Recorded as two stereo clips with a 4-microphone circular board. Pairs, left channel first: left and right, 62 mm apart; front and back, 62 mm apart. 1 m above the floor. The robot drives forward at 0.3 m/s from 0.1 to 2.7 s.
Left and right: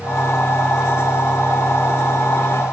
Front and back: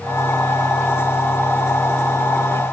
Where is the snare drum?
No snare drum in this recording.